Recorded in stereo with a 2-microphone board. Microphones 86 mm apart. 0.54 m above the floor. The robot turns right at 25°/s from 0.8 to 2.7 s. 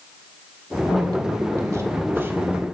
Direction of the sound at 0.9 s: 60° right.